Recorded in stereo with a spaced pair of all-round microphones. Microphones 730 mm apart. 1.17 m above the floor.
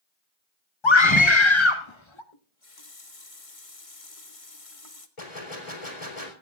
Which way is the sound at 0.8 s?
40° left (ahead or behind).